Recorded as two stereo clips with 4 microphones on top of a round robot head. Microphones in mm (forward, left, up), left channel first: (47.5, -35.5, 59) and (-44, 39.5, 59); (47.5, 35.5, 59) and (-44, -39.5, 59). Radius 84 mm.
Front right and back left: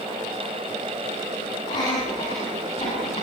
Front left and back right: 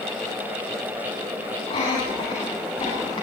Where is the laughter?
Straight ahead, 8.5 m; by 3.2 s 5° right, 9 m.